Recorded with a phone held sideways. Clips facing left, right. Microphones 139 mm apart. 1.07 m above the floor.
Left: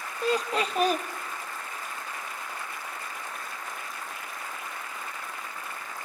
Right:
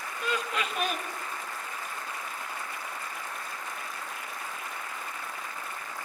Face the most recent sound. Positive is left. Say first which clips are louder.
# left 5 dB
turn(degrees=35)  # may be behind; listen again after turning